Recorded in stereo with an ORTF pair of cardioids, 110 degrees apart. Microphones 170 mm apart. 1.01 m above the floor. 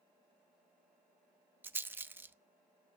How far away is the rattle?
About 0.8 m.